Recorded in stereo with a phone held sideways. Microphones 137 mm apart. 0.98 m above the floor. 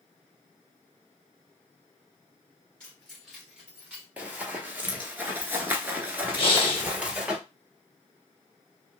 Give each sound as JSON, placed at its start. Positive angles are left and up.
{"t": 2.8, "sound": "keys jangling", "side_deg": 10, "distance_m": 2.0}
{"t": 4.2, "sound": "running footsteps", "side_deg": -10, "distance_m": 1.3}
{"t": 6.4, "sound": "breathing", "side_deg": 40, "distance_m": 1.0}